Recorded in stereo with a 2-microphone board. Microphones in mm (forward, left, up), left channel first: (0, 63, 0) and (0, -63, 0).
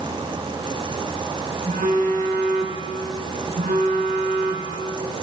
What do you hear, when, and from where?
1.7 s a phone buzzing: 80° right, 4 m